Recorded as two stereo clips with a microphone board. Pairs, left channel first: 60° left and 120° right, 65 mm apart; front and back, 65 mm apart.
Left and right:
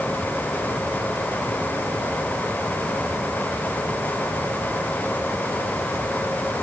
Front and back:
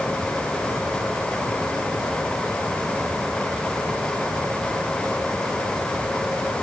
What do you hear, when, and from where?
Only background noise.